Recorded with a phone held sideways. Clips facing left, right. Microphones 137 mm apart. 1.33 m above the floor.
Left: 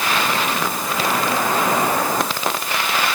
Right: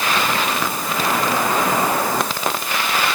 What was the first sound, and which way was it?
Only background noise.